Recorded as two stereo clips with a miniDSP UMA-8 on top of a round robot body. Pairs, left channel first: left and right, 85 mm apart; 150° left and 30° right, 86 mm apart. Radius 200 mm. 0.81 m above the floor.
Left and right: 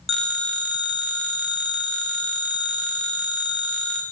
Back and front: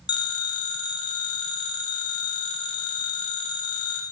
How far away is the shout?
I don't hear a shout.